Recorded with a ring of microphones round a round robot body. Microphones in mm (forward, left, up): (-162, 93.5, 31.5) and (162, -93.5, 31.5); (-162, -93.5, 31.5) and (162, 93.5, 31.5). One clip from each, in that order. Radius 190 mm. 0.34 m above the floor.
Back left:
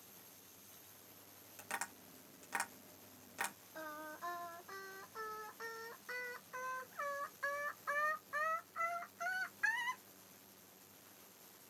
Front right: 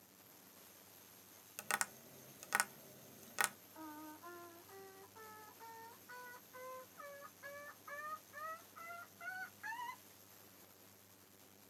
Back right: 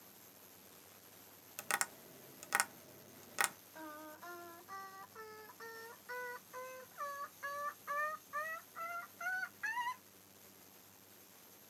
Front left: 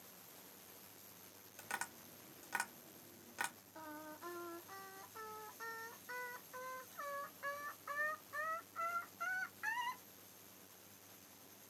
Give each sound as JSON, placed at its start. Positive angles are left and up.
{"t": 1.6, "sound": "tapping", "azimuth_deg": -90, "distance_m": 0.7}
{"t": 3.8, "sound": "singing", "azimuth_deg": 125, "distance_m": 1.2}